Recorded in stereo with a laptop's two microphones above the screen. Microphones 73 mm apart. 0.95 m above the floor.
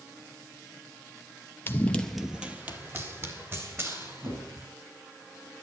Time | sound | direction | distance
1.7 | running footsteps | 30° left (ahead or behind) | 1.0 m